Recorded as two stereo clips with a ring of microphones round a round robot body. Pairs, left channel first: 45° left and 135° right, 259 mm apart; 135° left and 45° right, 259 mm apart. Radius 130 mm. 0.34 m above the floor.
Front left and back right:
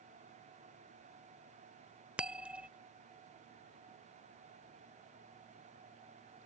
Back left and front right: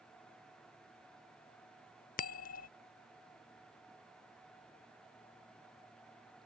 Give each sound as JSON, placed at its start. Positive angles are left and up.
{"t": 2.2, "sound": "a bell", "azimuth_deg": 145}